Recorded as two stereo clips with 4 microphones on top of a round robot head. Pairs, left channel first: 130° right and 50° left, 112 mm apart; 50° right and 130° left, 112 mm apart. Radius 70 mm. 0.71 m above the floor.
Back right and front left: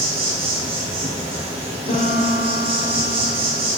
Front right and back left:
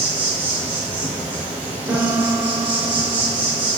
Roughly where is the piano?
Behind right.